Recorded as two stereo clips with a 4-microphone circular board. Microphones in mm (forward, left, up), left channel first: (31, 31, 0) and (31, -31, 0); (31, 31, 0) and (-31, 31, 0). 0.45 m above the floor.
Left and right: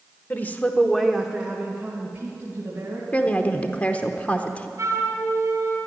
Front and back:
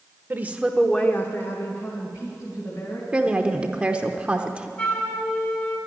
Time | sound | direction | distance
0.3 | a woman speaking | 135° left | 1.3 m
3.1 | a woman speaking | 125° left | 0.8 m
4.8 | a flute | 60° right | 2.5 m